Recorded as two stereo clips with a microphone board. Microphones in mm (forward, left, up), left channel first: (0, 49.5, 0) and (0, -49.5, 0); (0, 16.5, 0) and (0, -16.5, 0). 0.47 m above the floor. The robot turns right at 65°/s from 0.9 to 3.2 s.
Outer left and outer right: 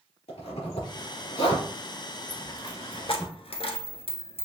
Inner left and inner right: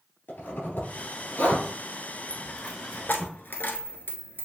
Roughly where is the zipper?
Left.